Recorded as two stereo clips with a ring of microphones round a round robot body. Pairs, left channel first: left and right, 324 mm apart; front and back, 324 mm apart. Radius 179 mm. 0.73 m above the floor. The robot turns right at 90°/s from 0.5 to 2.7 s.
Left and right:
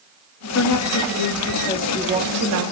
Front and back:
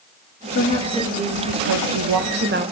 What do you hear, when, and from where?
0.6 s a woman speaking: 55° left, 1.3 m; by 2.7 s 110° right, 1.3 m